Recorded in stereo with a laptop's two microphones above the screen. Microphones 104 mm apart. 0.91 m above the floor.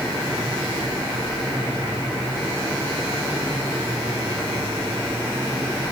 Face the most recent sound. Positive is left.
No sound to turn to.